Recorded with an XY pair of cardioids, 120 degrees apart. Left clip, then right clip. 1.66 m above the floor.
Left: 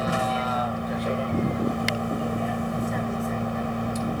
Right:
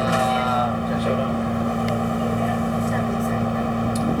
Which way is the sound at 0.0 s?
35° right.